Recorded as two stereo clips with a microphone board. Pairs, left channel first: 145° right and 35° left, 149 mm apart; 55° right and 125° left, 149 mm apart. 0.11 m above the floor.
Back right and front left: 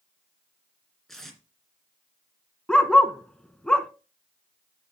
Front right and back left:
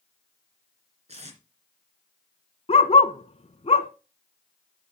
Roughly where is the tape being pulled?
Behind left.